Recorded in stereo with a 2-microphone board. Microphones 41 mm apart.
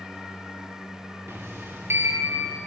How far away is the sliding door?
About 5.5 m.